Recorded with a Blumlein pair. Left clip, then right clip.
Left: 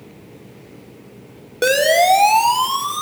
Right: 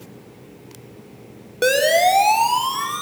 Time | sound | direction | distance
1.6 | a siren | 5° left | 4.5 m